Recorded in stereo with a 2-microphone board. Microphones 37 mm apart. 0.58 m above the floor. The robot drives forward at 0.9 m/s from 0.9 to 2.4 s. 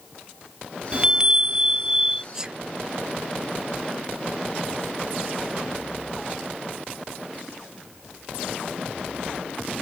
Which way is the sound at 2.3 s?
15° right (ahead or behind).